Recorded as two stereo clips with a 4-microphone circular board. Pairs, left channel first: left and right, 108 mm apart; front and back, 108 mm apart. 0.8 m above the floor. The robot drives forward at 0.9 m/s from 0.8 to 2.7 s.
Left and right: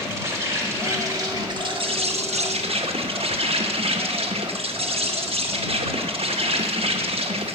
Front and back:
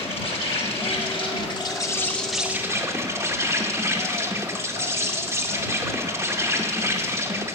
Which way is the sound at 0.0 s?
30° right.